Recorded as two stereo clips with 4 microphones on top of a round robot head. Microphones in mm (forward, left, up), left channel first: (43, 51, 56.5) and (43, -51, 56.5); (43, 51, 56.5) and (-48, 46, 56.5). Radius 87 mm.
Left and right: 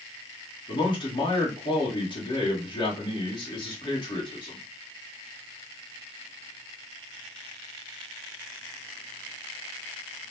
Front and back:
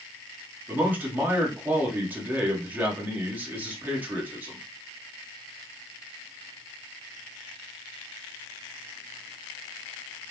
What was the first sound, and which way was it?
A man speaking, 115° left.